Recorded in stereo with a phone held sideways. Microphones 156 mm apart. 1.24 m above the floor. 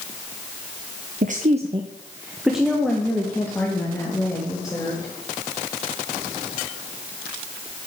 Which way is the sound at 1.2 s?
60° right (ahead or behind).